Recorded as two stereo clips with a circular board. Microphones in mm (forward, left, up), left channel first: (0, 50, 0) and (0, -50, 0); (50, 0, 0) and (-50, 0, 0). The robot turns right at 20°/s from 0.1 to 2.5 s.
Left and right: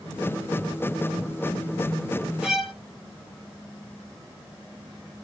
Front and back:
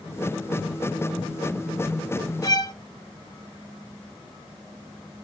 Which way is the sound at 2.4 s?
10° right.